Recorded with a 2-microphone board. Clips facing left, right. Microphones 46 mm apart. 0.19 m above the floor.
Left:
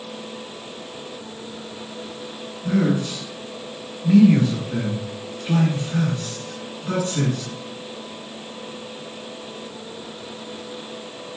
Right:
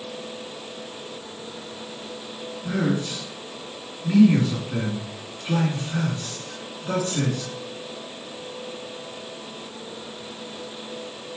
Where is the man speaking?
Centre (ahead or behind), 2 m.